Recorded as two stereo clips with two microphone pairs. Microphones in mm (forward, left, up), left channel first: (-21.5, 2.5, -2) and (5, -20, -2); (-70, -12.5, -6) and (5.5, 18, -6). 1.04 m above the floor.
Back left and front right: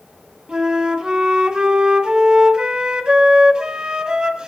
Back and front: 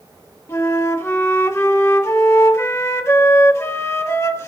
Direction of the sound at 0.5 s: 100° right.